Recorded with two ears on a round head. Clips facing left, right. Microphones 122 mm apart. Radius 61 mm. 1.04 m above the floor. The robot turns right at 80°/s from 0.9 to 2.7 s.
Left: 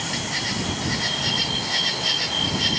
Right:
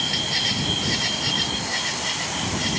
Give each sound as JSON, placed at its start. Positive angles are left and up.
{"t": 0.0, "sound": "an insect", "azimuth_deg": -30}